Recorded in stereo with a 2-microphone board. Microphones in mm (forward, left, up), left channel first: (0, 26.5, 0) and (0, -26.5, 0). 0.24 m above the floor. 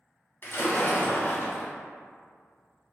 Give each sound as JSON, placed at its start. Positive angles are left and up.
{"t": 0.4, "sound": "a splash", "side_deg": 50, "distance_m": 0.9}